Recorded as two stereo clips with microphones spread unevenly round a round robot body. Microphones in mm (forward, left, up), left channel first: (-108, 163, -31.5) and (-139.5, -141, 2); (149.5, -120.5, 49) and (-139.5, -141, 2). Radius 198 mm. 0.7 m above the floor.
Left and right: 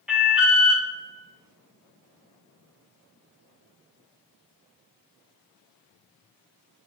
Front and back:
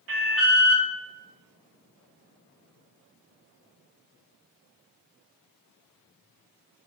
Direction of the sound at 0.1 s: 175° left.